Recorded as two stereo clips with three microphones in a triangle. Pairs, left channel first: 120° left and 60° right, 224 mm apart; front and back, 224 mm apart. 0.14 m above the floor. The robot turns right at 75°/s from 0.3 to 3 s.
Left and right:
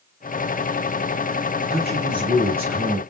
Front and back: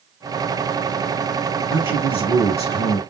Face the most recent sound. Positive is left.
turn(degrees=40)